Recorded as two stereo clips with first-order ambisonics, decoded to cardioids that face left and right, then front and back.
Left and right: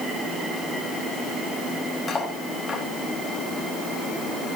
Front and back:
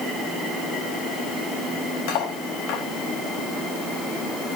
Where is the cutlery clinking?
15° left, 4 m.